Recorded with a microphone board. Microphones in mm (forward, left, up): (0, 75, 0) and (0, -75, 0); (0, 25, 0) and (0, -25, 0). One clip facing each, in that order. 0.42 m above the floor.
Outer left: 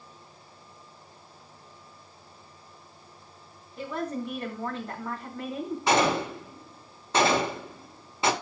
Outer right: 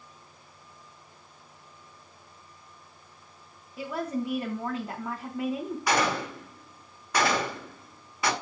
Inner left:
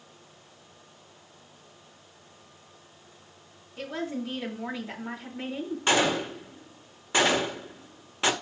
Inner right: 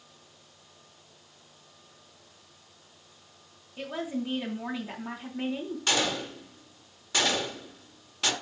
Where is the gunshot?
25° left (ahead or behind), 1.4 m.